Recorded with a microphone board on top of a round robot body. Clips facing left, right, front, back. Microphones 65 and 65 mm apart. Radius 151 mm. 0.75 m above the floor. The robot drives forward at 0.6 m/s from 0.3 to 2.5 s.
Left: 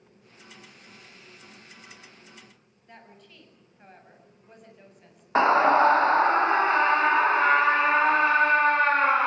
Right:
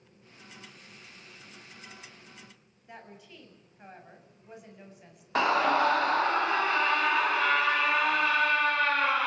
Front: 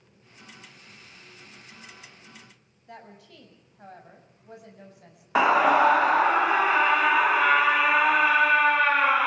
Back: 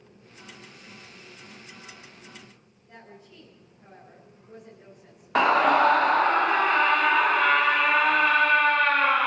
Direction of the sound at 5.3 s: 75° left.